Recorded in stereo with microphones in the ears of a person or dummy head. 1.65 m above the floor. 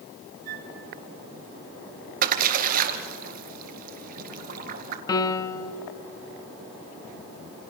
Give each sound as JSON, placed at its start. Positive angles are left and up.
{"t": 0.5, "sound": "a flute", "side_deg": -45, "distance_m": 3.0}
{"t": 2.2, "sound": "a splash", "side_deg": -45, "distance_m": 2.0}
{"t": 5.1, "sound": "a piano", "side_deg": 20, "distance_m": 1.1}